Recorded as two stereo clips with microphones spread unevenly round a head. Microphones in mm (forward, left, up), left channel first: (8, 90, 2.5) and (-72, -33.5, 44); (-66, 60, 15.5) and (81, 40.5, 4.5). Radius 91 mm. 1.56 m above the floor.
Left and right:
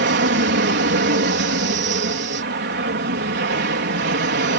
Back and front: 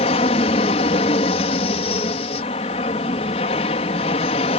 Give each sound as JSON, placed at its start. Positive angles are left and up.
{"t": 0.0, "sound": "an aircraft", "azimuth_deg": -130}